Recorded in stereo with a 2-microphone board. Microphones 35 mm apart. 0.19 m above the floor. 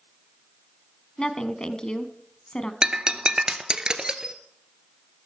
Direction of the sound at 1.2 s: 25° left (ahead or behind).